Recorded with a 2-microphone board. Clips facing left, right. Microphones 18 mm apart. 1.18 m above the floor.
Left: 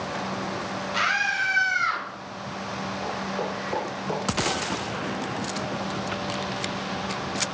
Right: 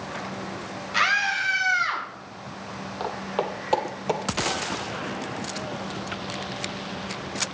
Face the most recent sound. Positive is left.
turn(degrees=-35)  # may be behind; listen again after turning